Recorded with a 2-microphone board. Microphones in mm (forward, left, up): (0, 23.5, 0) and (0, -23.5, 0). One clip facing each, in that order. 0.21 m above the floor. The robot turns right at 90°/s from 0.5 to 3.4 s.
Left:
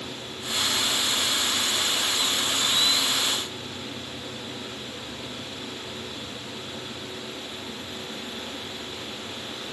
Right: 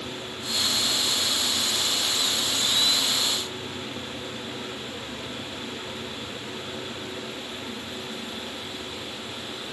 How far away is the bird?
No bird in this recording.